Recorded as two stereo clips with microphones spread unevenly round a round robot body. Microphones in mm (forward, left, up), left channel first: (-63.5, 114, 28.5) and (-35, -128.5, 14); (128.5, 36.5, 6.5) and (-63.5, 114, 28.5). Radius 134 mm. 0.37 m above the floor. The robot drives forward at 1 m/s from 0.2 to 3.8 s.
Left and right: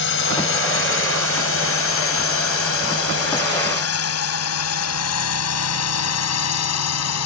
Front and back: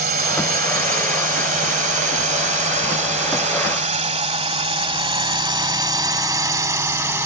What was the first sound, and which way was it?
A drone, 120° left.